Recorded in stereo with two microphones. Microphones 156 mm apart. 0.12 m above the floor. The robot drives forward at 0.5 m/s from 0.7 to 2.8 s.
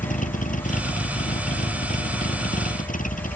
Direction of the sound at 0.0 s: 50° left (ahead or behind).